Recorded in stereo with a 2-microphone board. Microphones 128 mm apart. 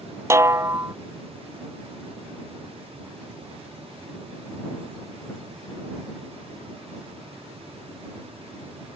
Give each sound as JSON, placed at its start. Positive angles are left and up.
{"t": 0.3, "sound": "a snare drum", "side_deg": -20}